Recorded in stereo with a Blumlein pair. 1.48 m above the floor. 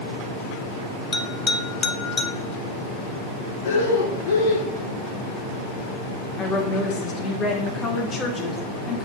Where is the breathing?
60° left, 1.7 m.